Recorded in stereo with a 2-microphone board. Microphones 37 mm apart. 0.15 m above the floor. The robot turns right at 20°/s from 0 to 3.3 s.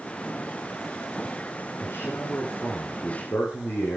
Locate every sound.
1.8 s a man speaking: 75° left (ahead or behind), 6 m; by 4.0 s 60° left (ahead or behind), 6 m